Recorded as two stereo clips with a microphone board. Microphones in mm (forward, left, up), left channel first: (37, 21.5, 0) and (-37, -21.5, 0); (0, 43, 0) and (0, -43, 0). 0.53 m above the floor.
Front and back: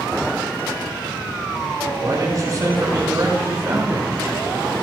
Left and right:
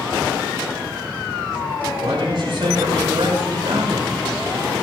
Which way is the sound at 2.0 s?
105° right.